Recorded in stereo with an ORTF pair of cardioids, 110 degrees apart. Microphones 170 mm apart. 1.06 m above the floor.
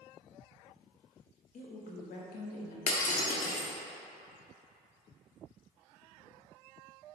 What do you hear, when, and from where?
1.5 s a woman speaking: 50° left, 1.8 m; by 2.8 s 80° left, 1.5 m
2.9 s breaking glass: 50° left, 1.5 m